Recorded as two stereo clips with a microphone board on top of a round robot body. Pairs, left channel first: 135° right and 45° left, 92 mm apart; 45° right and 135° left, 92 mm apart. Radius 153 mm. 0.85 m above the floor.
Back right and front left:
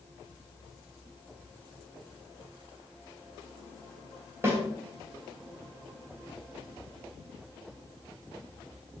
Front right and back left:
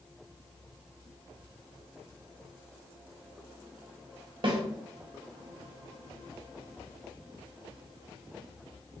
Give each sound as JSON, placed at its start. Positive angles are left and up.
{"t": 4.4, "sound": "a snare drum", "azimuth_deg": 105, "distance_m": 1.3}